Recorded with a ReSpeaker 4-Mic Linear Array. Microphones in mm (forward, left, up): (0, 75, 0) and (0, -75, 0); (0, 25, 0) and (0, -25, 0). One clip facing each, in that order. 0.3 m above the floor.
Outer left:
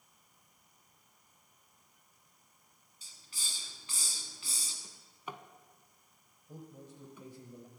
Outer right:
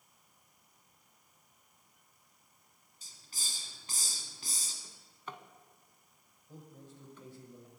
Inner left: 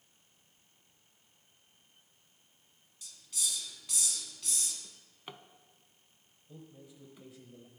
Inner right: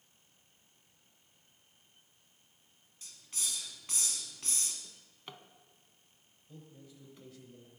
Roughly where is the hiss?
Right.